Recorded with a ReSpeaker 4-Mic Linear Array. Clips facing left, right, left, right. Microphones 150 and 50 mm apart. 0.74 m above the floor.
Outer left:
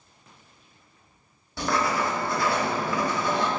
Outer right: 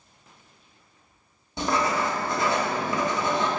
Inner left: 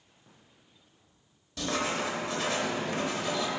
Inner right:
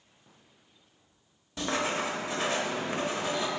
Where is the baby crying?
I don't hear a baby crying.